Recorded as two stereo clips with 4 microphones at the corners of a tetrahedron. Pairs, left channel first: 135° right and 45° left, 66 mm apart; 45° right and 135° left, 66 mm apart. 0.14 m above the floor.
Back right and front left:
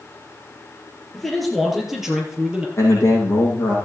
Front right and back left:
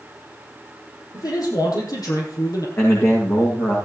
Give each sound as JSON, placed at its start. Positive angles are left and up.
{"t": 1.1, "sound": "a man speaking", "azimuth_deg": -50, "distance_m": 4.0}
{"t": 2.8, "sound": "a man speaking", "azimuth_deg": -90, "distance_m": 7.5}